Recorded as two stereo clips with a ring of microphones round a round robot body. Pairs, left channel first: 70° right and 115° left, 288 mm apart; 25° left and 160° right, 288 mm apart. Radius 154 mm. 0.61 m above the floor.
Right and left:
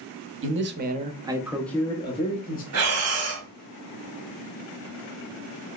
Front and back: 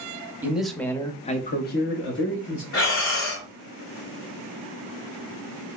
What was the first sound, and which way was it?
A man speaking, 120° left.